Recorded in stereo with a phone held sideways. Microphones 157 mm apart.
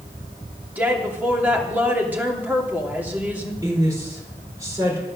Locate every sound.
0.8 s a woman speaking: 10° right (ahead or behind), 2.5 m
3.6 s a woman speaking: 20° right (ahead or behind), 4.5 m